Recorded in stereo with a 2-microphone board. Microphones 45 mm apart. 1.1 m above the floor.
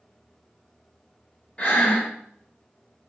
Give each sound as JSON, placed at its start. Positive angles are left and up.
{"t": 1.6, "sound": "breathing", "side_deg": 30, "distance_m": 0.9}